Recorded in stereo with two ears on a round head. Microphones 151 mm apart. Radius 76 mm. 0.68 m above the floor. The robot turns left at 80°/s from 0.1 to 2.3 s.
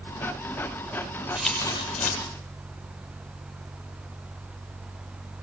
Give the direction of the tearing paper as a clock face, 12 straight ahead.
6 o'clock.